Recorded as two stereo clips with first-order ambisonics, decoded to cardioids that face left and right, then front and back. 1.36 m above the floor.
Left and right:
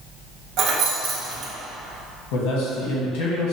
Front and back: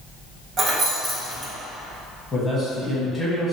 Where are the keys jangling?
125° right, 0.6 m.